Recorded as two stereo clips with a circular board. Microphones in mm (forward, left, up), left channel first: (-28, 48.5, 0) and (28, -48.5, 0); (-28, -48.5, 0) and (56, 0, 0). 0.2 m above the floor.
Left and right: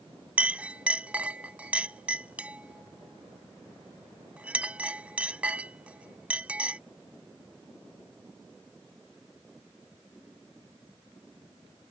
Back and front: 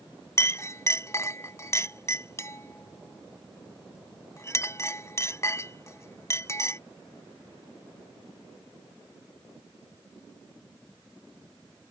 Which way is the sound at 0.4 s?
130° right.